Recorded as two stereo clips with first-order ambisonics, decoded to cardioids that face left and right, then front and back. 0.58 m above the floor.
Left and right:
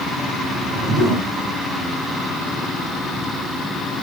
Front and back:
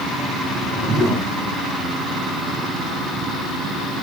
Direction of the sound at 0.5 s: 125° right.